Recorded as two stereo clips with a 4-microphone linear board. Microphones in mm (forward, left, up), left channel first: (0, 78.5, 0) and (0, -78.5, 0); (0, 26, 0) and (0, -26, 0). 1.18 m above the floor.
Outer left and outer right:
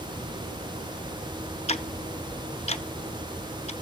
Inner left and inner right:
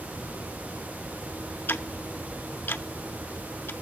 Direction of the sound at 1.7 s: 45° left (ahead or behind).